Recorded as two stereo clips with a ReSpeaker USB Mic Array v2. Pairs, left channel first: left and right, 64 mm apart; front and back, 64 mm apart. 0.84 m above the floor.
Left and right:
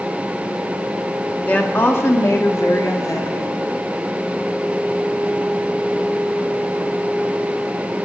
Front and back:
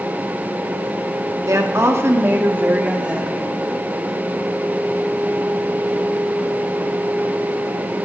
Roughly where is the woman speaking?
Behind left.